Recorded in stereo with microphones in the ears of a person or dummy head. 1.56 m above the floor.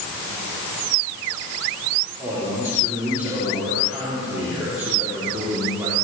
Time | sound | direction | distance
2.2 | a man speaking | 10° right (ahead or behind) | 4 m